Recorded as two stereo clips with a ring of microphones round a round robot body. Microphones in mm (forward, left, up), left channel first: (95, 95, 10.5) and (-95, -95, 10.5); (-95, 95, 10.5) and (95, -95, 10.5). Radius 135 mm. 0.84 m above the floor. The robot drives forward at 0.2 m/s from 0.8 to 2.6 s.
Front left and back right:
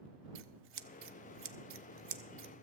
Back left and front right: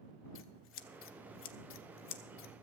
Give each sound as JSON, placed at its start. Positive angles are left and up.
{"t": 0.3, "sound": "scissors", "azimuth_deg": 180, "distance_m": 0.7}